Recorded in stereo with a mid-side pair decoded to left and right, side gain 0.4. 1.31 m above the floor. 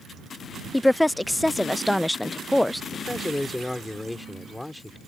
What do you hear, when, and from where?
0.7 s a woman speaking: 10° left
2.9 s a man speaking: 10° left